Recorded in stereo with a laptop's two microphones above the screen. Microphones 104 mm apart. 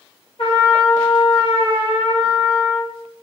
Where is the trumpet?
65° left (ahead or behind), 1.1 m.